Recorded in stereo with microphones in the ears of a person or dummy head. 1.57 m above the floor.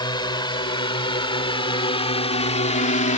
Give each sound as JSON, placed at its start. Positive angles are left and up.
{"t": 0.0, "sound": "a drone", "side_deg": 25}